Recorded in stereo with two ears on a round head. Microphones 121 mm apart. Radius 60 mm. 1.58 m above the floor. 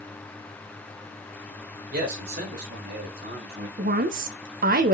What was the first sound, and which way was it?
A man speaking, 75° right (ahead or behind).